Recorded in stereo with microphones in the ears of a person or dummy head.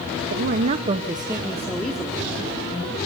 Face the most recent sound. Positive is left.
turn(degrees=30)  # may be behind; listen again after turning